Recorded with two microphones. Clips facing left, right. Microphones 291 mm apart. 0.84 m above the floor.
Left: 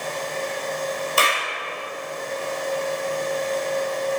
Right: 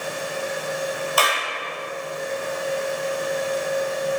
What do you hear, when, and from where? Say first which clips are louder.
1.2 s a clap: even; 30° left (ahead or behind), 1.3 m